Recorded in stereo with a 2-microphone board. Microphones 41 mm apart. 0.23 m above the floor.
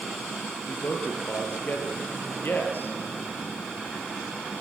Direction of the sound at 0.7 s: 55° left (ahead or behind).